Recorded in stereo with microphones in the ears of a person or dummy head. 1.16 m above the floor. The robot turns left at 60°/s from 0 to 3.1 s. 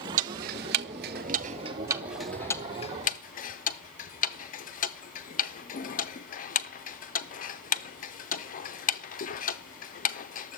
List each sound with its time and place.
0.2 s ticking: 40° right (ahead or behind), 0.5 m; by 10.6 s 35° left (ahead or behind), 0.5 m